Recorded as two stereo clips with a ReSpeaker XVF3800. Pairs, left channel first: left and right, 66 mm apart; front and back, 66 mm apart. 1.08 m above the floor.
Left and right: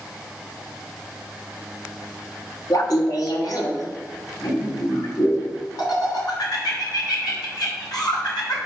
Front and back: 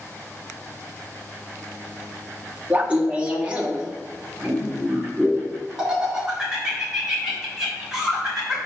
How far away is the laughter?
About 1.5 m.